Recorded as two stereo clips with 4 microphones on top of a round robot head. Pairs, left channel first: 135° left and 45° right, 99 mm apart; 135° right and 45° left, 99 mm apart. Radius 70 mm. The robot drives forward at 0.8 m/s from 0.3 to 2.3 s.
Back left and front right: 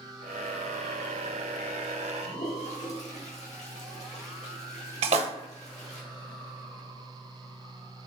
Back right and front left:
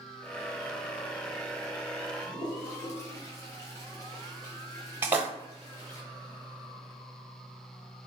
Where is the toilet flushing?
160° left, 1.2 m.